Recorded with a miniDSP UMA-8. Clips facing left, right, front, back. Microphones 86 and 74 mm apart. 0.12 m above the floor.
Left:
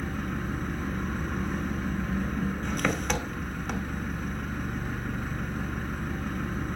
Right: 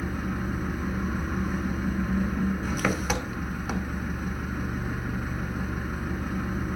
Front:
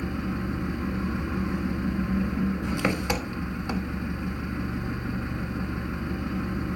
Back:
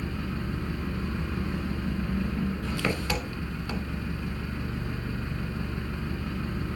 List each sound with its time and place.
0.0 s an engine running: 15° right, 1.1 m